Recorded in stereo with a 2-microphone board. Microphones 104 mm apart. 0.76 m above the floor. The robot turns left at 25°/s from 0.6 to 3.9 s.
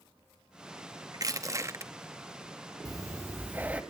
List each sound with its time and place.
1.1 s crushing: 40° right (ahead or behind), 0.9 m; by 1.9 s 25° right (ahead or behind), 0.9 m
2.9 s breathing: 35° right (ahead or behind), 1.2 m; by 3.8 s 15° right (ahead or behind), 1.2 m